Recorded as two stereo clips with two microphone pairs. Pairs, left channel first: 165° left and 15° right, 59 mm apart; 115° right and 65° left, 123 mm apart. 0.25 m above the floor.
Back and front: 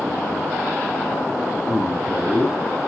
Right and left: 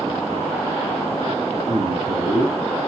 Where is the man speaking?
70° left, 3.5 m.